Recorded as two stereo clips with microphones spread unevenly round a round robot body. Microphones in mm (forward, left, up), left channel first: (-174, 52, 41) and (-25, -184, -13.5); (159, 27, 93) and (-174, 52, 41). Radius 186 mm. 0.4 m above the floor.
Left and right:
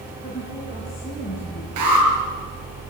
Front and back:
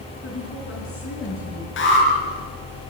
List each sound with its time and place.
0.2 s a woman speaking: 50° left, 5 m
1.8 s an alarm: 65° right, 6.5 m